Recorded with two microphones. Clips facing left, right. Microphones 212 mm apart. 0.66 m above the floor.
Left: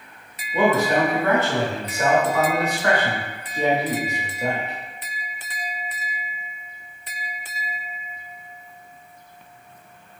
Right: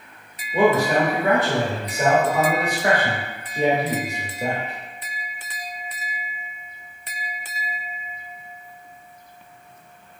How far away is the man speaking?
About 1.2 m.